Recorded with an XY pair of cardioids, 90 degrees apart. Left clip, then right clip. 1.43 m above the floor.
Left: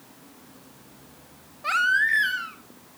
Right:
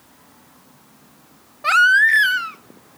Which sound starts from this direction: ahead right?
A baby crying, at 1.6 s.